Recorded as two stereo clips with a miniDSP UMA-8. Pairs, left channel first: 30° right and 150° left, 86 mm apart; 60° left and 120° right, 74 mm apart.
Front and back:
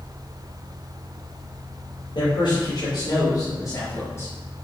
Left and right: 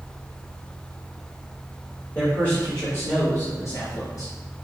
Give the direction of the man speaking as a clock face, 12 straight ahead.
12 o'clock.